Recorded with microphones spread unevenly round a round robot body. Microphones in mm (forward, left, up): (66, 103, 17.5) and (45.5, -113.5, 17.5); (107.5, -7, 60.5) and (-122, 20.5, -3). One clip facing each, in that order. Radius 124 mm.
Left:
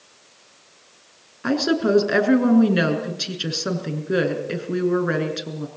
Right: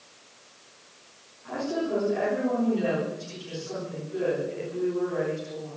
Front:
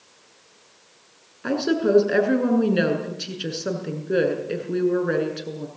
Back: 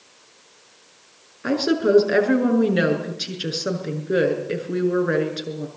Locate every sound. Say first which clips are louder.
1.4 s a woman speaking: left 9 dB, back 2 dB; 90° left, 6.5 m